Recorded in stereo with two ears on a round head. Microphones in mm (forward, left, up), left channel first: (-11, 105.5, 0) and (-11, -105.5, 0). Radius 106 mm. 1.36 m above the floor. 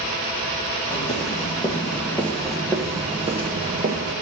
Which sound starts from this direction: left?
Footsteps, at 0.9 s.